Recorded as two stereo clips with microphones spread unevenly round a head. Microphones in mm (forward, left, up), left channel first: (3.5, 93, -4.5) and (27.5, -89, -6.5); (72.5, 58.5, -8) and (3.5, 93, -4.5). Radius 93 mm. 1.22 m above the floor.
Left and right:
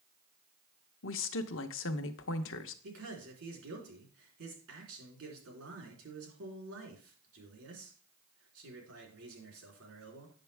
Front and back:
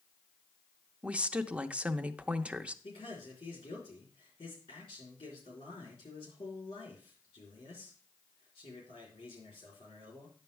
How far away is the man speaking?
About 3.5 m.